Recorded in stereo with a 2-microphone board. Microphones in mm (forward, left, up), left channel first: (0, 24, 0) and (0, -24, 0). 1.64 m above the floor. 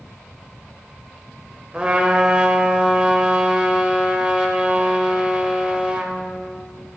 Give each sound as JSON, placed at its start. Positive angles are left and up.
{"t": 1.7, "sound": "a trumpet", "side_deg": -20, "distance_m": 0.6}